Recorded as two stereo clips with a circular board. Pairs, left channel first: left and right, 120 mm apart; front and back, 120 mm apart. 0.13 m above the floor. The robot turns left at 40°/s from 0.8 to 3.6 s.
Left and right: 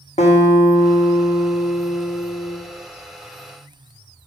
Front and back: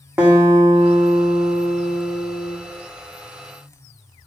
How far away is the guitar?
About 1.5 m.